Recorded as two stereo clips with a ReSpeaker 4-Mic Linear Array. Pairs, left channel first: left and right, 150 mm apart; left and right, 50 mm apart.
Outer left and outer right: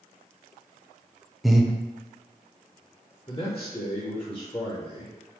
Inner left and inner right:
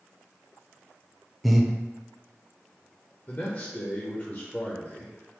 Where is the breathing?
Centre (ahead or behind), 0.5 m.